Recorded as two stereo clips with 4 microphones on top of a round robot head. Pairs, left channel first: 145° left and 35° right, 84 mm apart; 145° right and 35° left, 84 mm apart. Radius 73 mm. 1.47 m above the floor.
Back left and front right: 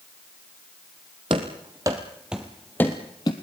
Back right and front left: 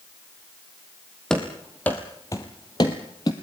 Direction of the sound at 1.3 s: 60° right.